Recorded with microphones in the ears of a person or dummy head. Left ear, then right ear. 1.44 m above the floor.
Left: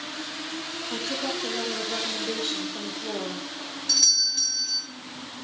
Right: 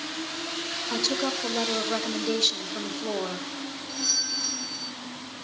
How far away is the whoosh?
No whoosh in this recording.